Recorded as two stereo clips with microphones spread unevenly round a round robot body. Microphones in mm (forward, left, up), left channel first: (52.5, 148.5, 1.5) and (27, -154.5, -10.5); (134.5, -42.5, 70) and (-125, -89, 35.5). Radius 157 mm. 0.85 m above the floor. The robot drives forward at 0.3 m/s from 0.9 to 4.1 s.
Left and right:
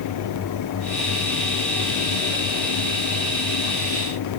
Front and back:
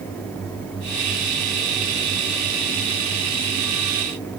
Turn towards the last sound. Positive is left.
No sound to turn to.